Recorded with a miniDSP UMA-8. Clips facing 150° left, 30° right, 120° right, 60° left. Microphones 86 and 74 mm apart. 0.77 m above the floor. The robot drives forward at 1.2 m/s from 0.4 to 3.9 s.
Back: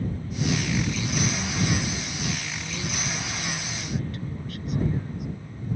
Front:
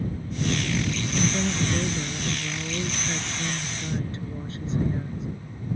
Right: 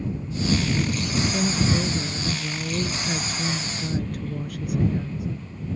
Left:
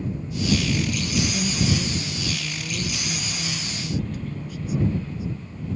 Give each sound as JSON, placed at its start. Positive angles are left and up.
{"t": 1.1, "sound": "a woman speaking", "azimuth_deg": -70}